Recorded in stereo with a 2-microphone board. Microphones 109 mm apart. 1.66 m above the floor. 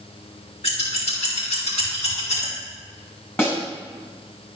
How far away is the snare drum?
About 5 m.